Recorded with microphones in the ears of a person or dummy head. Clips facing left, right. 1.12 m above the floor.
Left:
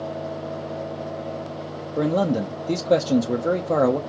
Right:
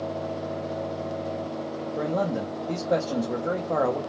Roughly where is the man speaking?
Left.